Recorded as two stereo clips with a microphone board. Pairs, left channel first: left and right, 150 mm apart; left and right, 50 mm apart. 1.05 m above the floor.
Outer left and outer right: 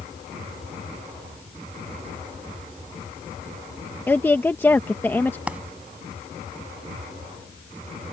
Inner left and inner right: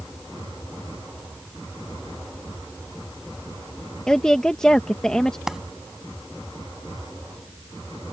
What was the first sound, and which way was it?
A woman speaking, 15° left (ahead or behind).